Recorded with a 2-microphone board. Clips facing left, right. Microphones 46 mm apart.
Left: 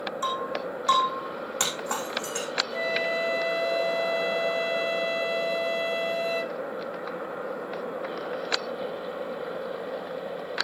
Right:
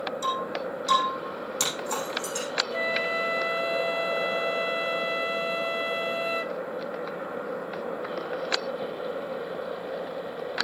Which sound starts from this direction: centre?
A flute, at 2.7 s.